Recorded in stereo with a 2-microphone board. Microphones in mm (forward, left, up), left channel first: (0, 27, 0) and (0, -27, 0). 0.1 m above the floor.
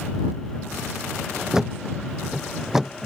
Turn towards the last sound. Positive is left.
turn(degrees=-5)  # may be behind; listen again after turning